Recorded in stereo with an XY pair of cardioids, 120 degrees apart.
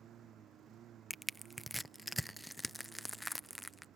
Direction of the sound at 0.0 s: 55° right.